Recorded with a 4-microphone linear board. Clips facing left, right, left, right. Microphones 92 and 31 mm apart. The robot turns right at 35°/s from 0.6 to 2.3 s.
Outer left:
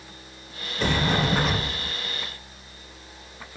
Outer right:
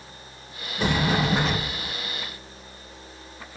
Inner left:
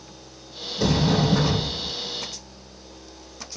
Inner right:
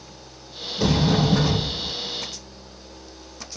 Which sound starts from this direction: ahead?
A sliding door, at 0.8 s.